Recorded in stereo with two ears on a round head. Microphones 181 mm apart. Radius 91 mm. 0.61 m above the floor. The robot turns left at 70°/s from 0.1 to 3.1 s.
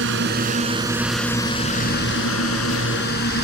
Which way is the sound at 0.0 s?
65° right (ahead or behind).